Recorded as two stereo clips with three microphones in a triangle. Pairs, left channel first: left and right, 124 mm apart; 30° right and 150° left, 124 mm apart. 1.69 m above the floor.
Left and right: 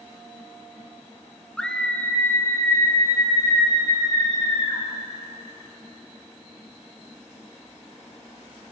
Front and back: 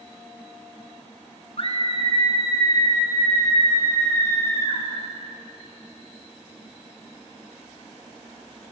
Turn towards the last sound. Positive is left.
turn(degrees=40)